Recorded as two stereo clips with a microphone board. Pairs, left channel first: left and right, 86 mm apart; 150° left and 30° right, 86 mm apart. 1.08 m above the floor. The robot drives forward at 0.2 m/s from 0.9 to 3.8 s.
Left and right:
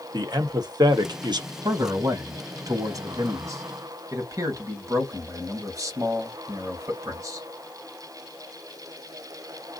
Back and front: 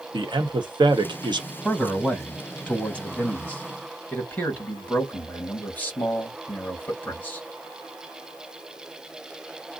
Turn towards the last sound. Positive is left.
turn(degrees=-140)